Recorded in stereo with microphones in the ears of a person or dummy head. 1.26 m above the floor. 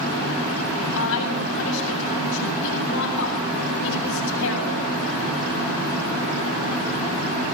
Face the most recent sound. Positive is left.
turn(degrees=70)  # may be behind; listen again after turning